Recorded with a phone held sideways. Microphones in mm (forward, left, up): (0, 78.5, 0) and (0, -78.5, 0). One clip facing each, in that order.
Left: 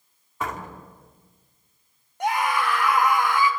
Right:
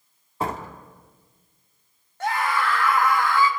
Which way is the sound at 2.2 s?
15° left (ahead or behind).